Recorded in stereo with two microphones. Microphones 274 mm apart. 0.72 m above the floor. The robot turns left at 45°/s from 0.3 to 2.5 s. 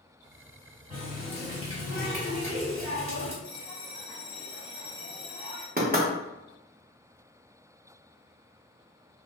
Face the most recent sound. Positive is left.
turn(degrees=-30)  # may be behind; listen again after turning